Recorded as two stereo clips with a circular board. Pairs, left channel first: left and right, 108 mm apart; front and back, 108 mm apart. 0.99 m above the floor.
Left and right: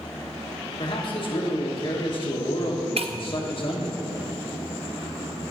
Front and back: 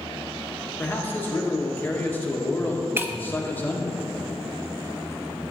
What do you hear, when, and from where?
0.8 s a man speaking: 70° left, 1.2 m
3.0 s breaking glass: 110° right, 0.5 m